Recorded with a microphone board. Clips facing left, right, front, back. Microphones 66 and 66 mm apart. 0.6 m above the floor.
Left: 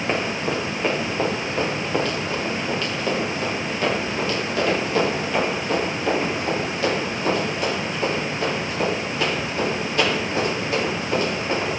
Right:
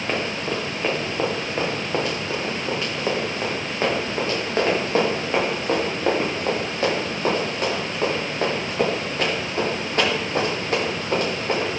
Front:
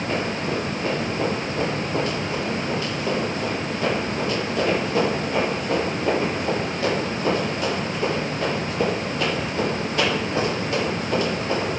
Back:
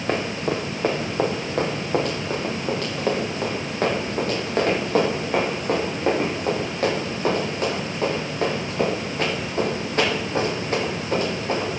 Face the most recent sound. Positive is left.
turn(degrees=-130)